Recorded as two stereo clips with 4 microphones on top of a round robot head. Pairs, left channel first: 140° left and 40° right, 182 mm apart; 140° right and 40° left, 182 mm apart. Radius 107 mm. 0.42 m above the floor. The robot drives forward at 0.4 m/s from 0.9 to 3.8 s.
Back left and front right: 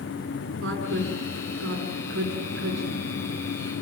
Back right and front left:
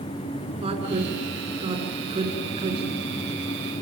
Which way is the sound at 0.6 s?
20° right.